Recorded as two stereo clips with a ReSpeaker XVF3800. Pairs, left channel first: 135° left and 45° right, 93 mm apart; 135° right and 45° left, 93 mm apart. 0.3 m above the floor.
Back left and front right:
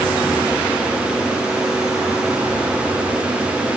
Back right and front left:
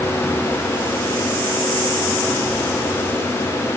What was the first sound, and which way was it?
Only background noise.